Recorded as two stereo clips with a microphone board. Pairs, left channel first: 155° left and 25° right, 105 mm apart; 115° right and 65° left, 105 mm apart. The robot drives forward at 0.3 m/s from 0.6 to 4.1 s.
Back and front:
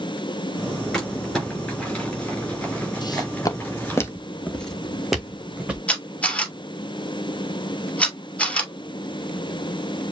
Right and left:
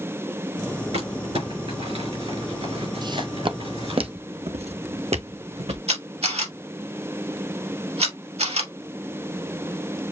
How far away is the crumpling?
About 4 m.